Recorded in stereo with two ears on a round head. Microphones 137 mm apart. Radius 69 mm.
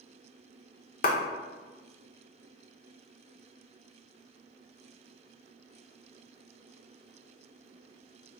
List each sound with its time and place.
1.0 s a clap: 60° left (ahead or behind), 0.5 m